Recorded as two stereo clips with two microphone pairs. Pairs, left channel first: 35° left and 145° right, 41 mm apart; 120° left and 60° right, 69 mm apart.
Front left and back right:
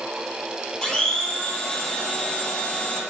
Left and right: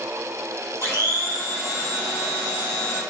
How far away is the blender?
About 2.5 m.